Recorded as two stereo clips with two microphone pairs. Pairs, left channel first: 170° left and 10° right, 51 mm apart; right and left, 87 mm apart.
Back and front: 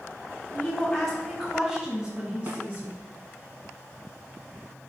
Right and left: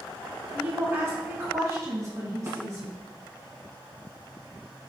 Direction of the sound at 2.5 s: 35° left.